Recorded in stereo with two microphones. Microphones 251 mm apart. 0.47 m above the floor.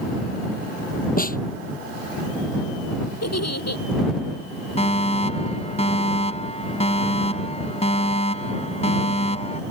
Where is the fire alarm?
25° left (ahead or behind).